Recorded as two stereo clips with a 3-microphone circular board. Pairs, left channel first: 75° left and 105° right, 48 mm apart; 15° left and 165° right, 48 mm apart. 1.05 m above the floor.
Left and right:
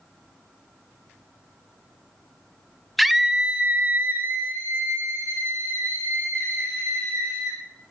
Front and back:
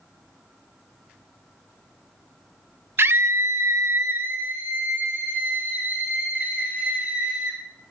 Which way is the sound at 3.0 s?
165° left.